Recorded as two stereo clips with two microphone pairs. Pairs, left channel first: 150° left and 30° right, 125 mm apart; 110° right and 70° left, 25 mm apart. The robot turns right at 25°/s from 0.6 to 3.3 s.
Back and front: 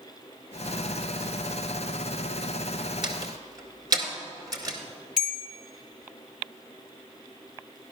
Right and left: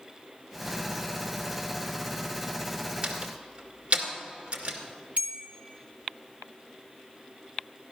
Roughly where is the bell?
Ahead left.